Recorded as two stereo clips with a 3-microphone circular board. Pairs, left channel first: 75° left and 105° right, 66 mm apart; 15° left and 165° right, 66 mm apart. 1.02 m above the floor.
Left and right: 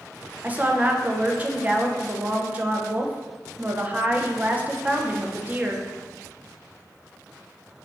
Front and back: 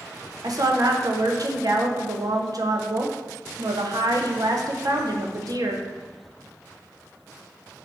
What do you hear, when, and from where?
0.4 s a woman speaking: 165° right, 0.5 m